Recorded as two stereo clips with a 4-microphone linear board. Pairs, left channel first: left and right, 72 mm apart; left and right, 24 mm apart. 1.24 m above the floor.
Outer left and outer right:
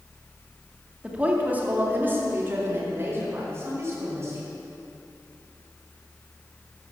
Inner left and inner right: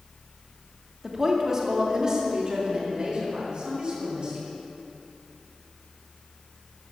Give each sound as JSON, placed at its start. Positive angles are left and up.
{"t": 1.0, "sound": "a woman speaking", "side_deg": -15, "distance_m": 2.0}